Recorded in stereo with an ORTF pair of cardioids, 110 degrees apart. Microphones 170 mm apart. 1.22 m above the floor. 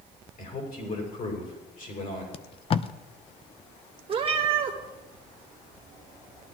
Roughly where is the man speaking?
Ahead left.